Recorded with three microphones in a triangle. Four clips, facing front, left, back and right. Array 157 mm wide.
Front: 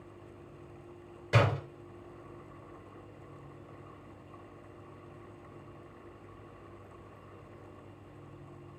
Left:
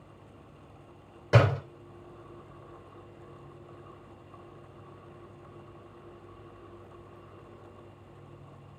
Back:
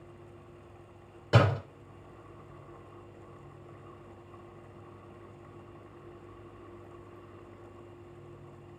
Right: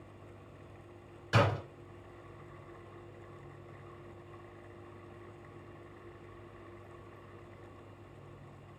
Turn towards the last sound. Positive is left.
turn(degrees=115)